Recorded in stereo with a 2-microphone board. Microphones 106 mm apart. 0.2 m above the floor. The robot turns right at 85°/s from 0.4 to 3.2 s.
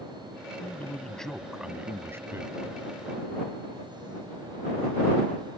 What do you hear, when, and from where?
0.6 s a man speaking: 25° left (ahead or behind); by 2.6 s 25° right (ahead or behind)